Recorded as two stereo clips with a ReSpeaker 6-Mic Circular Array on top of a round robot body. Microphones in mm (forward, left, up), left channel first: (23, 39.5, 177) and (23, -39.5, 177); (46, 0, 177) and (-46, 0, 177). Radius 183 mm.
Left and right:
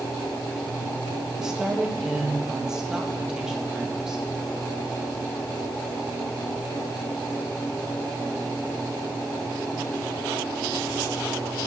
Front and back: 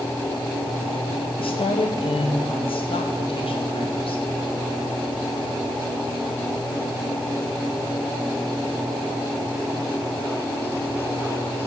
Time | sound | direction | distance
1.4 | a woman speaking | 10° right | 1.9 m